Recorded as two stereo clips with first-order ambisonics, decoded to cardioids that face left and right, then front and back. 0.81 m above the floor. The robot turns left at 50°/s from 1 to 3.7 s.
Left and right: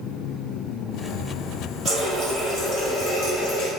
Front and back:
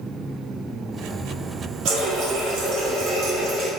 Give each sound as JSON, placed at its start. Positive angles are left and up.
{"t": 1.9, "sound": "a running tap", "azimuth_deg": -165, "distance_m": 1.5}